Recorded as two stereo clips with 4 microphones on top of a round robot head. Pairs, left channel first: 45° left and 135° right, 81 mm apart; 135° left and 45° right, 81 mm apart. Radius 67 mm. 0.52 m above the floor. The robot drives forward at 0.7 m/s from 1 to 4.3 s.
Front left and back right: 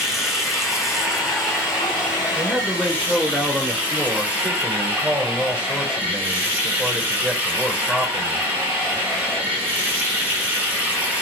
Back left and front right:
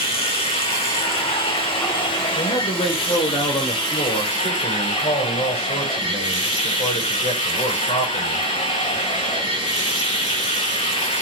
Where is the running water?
140° left, 3.5 m; by 11.2 s 155° left, 5.5 m.